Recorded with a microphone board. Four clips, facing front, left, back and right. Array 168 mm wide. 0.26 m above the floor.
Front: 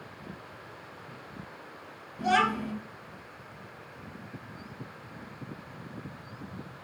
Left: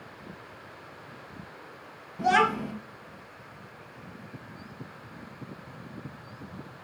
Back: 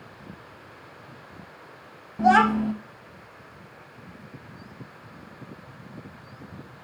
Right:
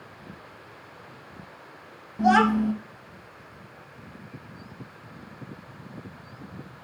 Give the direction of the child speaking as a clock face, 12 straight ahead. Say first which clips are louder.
Right 4 dB, back 8 dB; 5 o'clock.